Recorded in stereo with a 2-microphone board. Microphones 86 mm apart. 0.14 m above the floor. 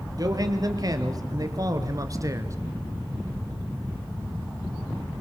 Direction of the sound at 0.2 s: 45° right (ahead or behind).